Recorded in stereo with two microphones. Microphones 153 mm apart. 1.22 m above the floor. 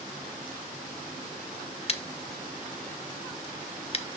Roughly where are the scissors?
Left.